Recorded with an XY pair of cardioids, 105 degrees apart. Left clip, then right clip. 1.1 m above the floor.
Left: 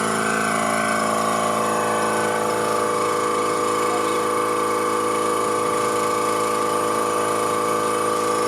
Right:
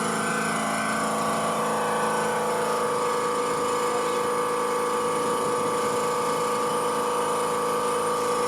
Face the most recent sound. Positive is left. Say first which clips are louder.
# left 5 dB
turn(degrees=60)